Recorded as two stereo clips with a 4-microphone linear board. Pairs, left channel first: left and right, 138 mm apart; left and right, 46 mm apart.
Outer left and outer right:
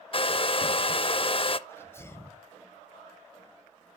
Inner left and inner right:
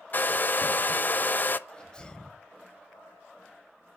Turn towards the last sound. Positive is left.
turn(degrees=20)  # may be behind; listen again after turning